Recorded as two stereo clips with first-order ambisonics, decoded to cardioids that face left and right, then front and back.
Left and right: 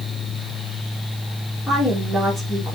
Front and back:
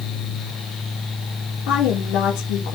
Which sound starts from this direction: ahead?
A woman speaking, at 1.7 s.